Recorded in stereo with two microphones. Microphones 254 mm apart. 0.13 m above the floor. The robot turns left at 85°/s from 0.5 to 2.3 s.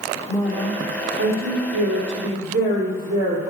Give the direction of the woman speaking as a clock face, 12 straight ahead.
12 o'clock.